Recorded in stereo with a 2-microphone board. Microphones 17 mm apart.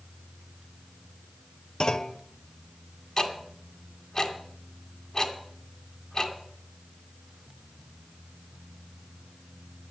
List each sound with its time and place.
1.8 s a clunk: 40° left (ahead or behind), 0.7 m
3.2 s ticking: 35° left (ahead or behind), 2 m